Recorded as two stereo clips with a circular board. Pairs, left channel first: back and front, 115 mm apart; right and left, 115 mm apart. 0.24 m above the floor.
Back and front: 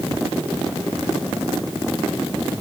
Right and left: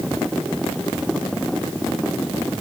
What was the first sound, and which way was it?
Only background noise.